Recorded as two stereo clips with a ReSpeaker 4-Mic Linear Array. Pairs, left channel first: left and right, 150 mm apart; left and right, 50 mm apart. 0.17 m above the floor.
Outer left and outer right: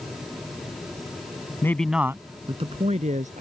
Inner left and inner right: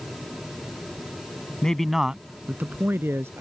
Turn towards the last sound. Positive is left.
turn(degrees=-60)  # may be behind; listen again after turning